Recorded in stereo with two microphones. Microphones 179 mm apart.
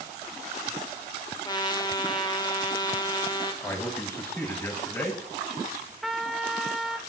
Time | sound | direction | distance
1.4 | a trumpet | 25° left (ahead or behind) | 1.3 m
3.6 | a man speaking | 15° left (ahead or behind) | 2.5 m
6.0 | a trumpet | centre (ahead or behind) | 1.2 m